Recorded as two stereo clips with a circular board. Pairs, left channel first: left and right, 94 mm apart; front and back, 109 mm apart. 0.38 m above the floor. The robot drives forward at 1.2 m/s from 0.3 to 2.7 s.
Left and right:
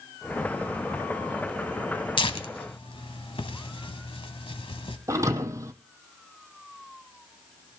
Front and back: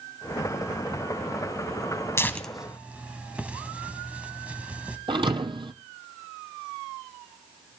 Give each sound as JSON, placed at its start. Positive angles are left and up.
{"t": 2.2, "sound": "tearing paper", "azimuth_deg": 65, "distance_m": 1.0}
{"t": 5.1, "sound": "a thud", "azimuth_deg": -145, "distance_m": 0.9}